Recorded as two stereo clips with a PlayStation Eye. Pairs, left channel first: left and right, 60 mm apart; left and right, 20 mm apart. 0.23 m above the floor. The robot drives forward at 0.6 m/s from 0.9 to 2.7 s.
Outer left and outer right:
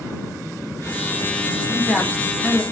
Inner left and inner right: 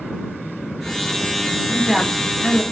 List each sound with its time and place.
1.7 s a woman speaking: 25° left (ahead or behind), 1.2 m; by 2.6 s 20° left (ahead or behind), 1.5 m